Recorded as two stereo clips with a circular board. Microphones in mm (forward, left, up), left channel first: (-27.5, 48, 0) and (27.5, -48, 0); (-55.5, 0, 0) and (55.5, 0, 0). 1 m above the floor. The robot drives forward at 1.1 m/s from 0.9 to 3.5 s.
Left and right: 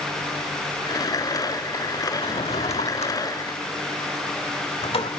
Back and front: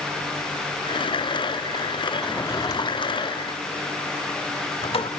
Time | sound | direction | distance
2.2 | a drawer | 95° left | 0.9 m